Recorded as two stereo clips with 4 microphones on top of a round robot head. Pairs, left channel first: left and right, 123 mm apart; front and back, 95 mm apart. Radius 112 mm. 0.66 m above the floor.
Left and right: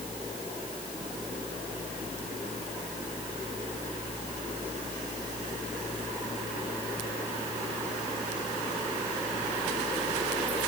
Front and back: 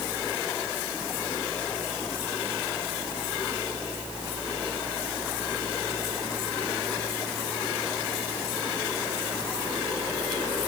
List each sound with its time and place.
Only background noise.